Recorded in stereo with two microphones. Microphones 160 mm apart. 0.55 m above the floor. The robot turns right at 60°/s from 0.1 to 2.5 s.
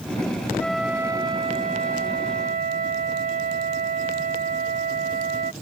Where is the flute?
170° left; by 5.5 s 75° right.